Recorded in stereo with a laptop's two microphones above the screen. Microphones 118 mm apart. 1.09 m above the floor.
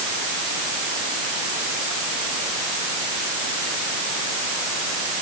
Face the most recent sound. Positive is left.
No sound to turn to.